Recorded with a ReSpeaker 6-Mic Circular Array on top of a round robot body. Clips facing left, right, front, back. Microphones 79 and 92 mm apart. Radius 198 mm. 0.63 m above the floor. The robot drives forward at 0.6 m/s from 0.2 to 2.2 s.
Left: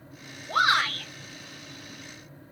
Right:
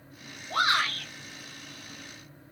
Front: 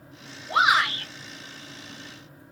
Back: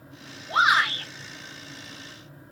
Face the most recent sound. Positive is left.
turn(degrees=110)